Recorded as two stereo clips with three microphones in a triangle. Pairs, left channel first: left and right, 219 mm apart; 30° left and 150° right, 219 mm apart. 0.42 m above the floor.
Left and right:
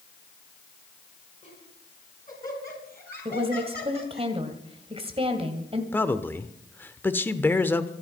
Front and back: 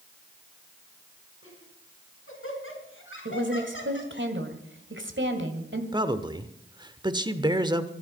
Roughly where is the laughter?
Ahead left.